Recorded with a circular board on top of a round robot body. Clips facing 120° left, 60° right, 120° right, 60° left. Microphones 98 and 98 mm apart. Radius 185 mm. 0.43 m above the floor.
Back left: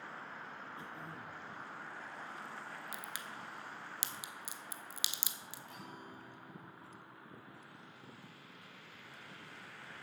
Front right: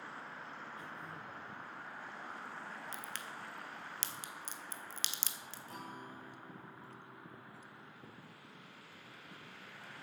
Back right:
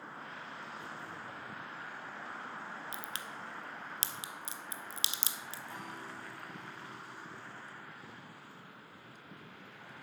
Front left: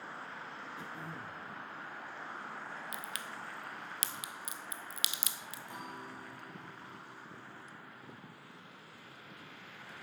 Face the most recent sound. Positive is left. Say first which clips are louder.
# front right 4 dB, front left 2 dB
turn(degrees=-10)